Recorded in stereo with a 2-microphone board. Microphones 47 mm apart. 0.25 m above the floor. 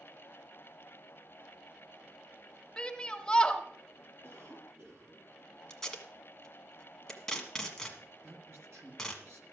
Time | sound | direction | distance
2.8 | a shout | 15° left (ahead or behind) | 1.0 m
4.2 | a cough | 70° right (ahead or behind) | 6.5 m
5.7 | tape being pulled | 10° left (ahead or behind) | 1.4 m
8.2 | a man speaking | 65° right (ahead or behind) | 2 m